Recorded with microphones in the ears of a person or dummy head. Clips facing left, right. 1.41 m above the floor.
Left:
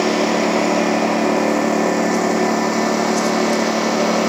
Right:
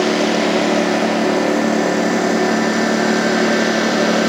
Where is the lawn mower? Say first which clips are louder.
Right 1 dB; 5° right (ahead or behind).